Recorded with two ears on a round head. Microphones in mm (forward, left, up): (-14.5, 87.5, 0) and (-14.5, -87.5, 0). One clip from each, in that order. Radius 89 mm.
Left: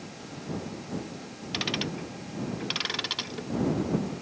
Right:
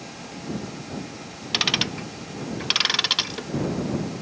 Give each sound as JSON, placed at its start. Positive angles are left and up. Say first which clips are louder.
{"t": 1.5, "sound": "ticking", "louder": "right 8 dB", "side_deg": -45}